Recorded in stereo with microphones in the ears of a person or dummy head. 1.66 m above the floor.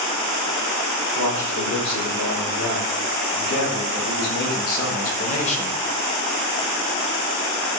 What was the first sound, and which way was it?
A man speaking, 70° left (ahead or behind).